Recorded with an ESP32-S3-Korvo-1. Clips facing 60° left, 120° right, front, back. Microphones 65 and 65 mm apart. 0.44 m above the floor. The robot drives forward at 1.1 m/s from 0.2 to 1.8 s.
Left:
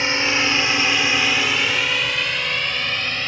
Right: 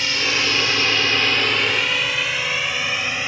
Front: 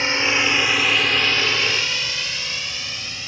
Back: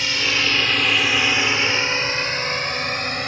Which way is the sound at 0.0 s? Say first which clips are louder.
Left 2 dB, front 2 dB; 30° left.